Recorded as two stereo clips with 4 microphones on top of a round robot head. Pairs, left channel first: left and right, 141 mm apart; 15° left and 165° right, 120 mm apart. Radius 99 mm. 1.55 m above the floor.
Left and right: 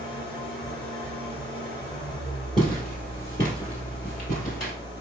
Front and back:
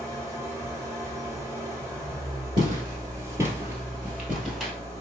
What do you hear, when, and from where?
0.0 s an engine running: 125° left, 1.6 m
2.6 s footsteps: straight behind, 1.7 m; by 4.7 s 110° left, 2 m